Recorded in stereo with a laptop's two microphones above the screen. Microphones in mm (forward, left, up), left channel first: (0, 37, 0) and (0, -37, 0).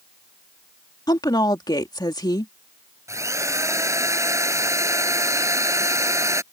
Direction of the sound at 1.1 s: 65° left (ahead or behind).